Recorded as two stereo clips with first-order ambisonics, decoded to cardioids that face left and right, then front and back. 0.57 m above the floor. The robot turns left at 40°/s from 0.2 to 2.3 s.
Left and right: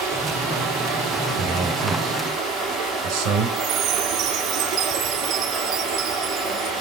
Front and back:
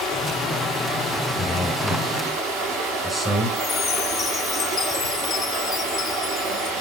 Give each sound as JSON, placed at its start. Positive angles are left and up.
{"t": 0.0, "sound": "running water", "azimuth_deg": -65, "distance_m": 4.0}
{"t": 1.4, "sound": "a man speaking", "azimuth_deg": -65, "distance_m": 2.0}
{"t": 3.6, "sound": "a chime", "azimuth_deg": -70, "distance_m": 0.5}